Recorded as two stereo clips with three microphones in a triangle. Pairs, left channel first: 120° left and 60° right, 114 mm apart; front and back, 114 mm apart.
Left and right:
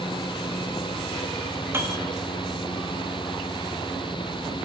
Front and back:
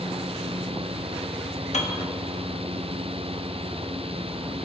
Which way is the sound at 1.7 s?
10° left.